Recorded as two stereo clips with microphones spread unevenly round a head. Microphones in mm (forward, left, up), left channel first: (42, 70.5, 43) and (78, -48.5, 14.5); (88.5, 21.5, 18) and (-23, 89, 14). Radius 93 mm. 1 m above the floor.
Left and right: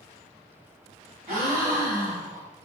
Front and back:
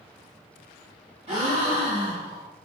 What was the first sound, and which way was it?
A gasp, 155° right.